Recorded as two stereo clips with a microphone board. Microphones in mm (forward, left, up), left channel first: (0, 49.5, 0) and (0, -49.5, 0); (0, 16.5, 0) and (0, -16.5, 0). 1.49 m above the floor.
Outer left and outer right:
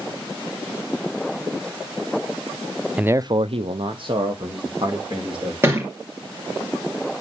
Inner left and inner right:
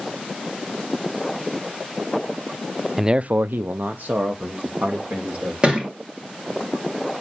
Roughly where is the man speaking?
Centre.